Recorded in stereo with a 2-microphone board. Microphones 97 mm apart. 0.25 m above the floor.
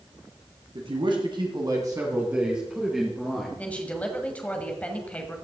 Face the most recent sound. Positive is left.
turn(degrees=15)  # may be behind; listen again after turning